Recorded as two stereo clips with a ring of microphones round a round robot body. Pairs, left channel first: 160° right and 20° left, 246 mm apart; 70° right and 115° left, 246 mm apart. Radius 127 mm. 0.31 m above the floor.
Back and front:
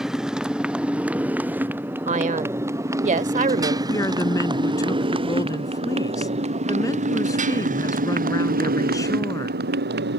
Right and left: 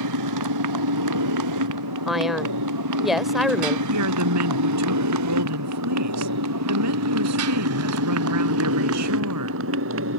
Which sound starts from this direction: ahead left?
A man speaking, at 2.1 s.